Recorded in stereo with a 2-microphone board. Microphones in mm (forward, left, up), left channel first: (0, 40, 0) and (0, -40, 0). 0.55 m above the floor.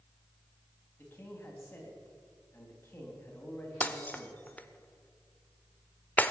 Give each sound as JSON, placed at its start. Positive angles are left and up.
{"t": 1.0, "sound": "a man speaking", "side_deg": 30, "distance_m": 3.0}
{"t": 3.8, "sound": "breaking glass", "side_deg": 20, "distance_m": 0.8}